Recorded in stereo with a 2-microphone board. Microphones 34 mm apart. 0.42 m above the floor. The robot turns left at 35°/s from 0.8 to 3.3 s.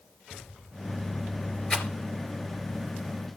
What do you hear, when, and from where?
1.7 s a rattle: 25° left (ahead or behind), 2.5 m; by 1.9 s 35° left (ahead or behind), 2.5 m